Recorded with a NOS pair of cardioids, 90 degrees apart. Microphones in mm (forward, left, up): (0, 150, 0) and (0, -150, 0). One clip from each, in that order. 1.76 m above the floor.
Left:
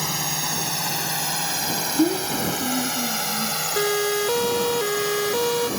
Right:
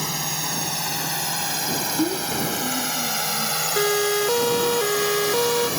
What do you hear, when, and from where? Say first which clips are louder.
0.0 s a drone: left 1 dB; 10° left; by 5.8 s 30° right
2.0 s a child speaking: left 2 dB; 30° left
3.8 s a siren: right 1 dB; 5° right